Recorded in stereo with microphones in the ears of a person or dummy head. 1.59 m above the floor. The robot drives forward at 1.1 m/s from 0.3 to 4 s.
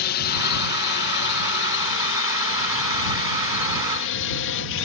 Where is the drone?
55° left (ahead or behind); by 4.8 s 65° left (ahead or behind).